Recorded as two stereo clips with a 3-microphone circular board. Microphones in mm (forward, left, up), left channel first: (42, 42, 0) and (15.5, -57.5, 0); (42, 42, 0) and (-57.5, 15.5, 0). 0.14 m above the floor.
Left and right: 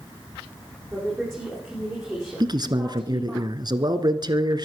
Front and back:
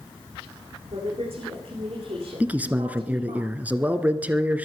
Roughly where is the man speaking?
Right.